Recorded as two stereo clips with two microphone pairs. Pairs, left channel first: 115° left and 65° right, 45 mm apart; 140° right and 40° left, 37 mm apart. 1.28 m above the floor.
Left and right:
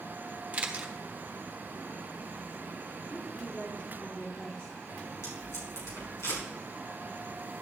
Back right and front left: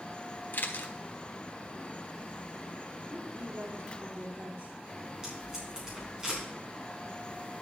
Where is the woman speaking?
45° left, 3 m.